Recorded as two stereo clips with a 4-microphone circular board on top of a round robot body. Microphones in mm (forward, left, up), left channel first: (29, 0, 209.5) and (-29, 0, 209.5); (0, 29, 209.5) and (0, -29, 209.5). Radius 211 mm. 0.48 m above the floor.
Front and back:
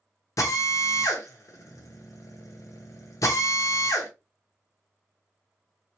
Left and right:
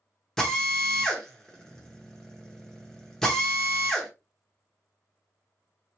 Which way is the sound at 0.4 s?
10° left.